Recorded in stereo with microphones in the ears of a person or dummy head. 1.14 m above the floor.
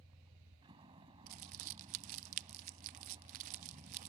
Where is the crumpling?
35° right (ahead or behind).